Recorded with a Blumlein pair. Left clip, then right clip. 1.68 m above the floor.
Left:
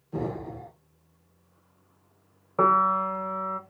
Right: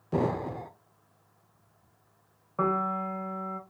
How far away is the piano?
About 0.7 m.